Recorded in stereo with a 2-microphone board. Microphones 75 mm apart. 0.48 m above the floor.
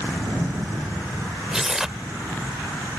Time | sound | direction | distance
1.5 | tearing paper | 5° right (ahead or behind) | ?